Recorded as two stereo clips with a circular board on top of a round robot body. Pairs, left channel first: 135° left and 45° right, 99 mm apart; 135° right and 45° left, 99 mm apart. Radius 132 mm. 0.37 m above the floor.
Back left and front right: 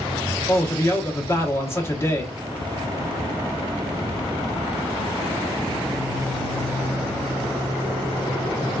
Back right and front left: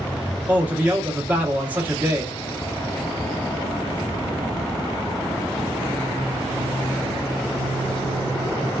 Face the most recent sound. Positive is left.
turn(degrees=100)